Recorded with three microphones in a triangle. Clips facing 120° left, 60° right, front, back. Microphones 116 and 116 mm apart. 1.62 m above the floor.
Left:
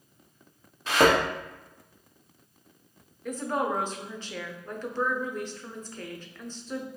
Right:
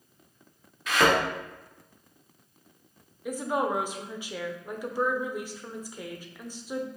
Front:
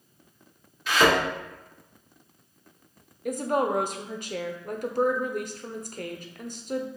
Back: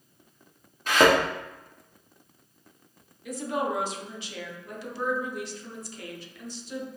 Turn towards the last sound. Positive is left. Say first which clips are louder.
# right 1 dB, front 4 dB
turn(degrees=15)